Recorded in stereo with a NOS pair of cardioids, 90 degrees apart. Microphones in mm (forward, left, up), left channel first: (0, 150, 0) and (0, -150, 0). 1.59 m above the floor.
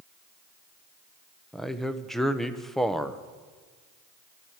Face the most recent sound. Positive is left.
turn(degrees=0)